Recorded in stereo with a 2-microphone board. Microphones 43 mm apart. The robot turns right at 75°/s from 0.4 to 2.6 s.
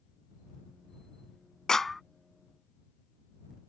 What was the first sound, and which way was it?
A clap, 15° left (ahead or behind).